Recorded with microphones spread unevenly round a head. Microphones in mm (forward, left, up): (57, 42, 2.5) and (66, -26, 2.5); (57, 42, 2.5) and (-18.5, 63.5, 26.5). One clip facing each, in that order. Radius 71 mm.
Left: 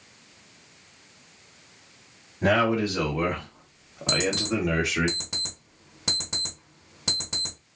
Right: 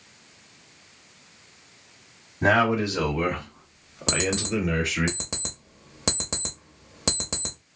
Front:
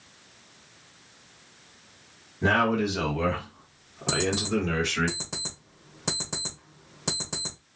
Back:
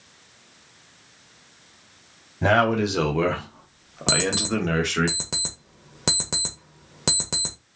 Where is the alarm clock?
140° right, 0.6 m.